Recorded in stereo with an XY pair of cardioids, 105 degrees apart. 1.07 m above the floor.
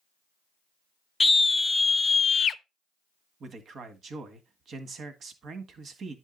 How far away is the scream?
About 1.2 m.